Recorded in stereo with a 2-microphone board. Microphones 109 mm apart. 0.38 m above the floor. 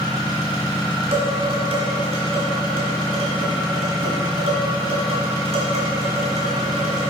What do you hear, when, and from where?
0.0 s an engine running: 40° left (ahead or behind), 1.9 m
1.1 s dishes clattering: 70° right (ahead or behind), 1.9 m